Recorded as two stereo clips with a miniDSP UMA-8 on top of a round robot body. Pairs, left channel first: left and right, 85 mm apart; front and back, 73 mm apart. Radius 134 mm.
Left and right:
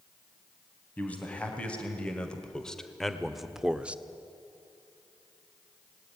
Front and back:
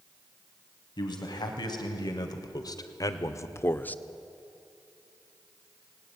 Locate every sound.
1.0 s a man speaking: 15° left, 3.5 m; by 4.0 s 45° right, 1.1 m